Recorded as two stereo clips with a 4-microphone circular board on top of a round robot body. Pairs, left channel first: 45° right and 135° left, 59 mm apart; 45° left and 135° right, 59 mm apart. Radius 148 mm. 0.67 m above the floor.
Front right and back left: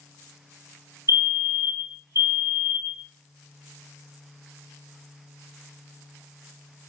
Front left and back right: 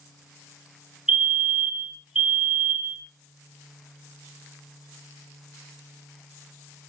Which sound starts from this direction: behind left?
A fire alarm, at 1.1 s.